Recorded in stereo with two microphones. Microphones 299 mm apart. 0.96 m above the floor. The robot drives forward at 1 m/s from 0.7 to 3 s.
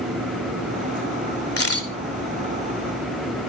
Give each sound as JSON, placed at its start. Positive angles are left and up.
{"t": 1.6, "sound": "a camera shutter", "side_deg": 50, "distance_m": 2.5}